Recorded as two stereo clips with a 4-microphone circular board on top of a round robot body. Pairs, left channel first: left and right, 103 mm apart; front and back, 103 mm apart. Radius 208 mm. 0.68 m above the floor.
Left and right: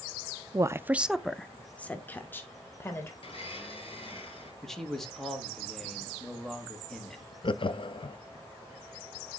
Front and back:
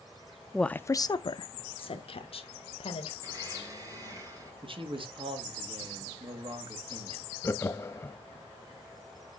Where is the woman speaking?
90° right, 0.6 m; by 3.1 s 20° left, 1.6 m.